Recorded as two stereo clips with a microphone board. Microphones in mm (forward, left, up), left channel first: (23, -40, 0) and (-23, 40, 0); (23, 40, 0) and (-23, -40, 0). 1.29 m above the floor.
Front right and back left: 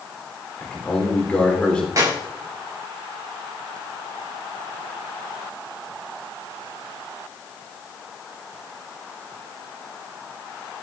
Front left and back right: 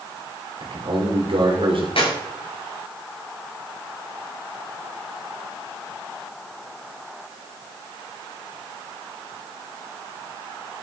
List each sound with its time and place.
0.6 s a man speaking: 140° right, 3.5 m
2.0 s a clap: 65° left, 6.5 m